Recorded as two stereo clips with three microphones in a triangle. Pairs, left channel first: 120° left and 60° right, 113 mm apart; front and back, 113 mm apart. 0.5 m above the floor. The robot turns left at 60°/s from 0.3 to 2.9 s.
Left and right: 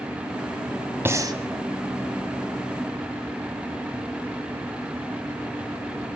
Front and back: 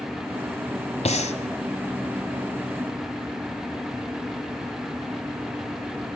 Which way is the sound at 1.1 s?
10° left.